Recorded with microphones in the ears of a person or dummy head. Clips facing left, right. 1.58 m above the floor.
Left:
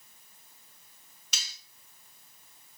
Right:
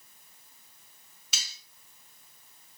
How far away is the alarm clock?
No alarm clock in this recording.